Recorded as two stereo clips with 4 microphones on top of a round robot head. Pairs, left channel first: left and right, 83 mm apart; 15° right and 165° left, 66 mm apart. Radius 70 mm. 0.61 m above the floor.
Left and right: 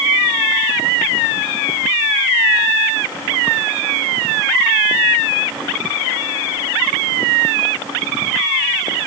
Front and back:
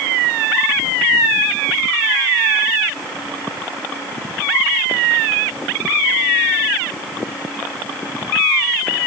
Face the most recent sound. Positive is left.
No sound to turn to.